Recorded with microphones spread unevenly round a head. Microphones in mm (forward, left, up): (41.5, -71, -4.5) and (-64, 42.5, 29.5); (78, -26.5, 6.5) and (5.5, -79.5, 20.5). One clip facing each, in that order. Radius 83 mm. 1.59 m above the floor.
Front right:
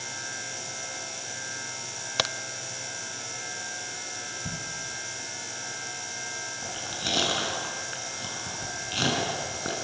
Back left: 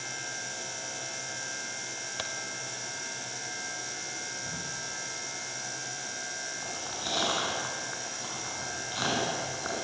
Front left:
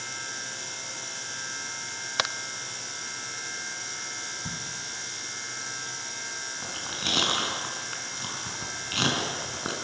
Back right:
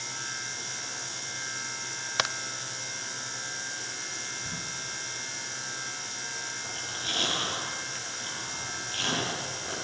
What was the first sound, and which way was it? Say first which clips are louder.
A crack: front right 10 dB, even; 50° right.